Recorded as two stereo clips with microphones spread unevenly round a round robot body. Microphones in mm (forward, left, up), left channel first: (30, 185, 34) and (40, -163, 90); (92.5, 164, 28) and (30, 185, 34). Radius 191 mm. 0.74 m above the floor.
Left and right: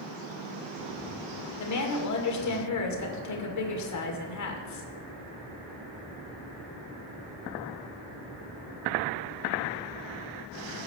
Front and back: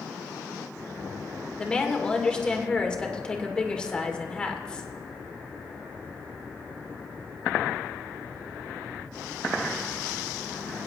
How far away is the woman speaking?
About 2 m.